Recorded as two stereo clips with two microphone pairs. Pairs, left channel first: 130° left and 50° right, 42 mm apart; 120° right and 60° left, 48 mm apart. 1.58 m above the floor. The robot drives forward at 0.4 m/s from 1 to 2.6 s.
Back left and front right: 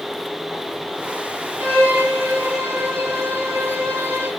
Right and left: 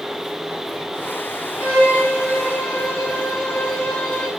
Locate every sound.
1.6 s a violin: 60° right, 6 m